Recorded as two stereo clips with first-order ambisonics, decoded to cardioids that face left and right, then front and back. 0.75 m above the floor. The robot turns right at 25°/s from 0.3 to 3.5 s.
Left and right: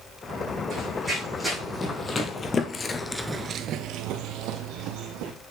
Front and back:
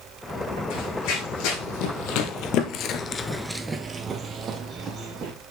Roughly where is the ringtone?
No ringtone in this recording.